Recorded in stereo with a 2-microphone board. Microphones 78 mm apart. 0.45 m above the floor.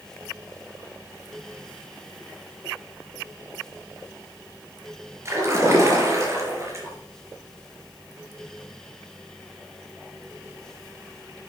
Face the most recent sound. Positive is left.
turn(degrees=-40)  # may be behind; listen again after turning